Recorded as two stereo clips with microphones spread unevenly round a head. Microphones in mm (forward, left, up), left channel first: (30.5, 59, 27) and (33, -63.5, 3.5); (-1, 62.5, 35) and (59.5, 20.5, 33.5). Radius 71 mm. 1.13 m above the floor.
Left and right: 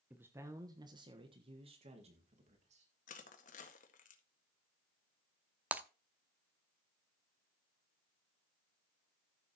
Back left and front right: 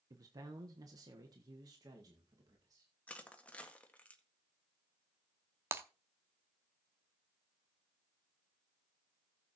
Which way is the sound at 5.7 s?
Straight ahead.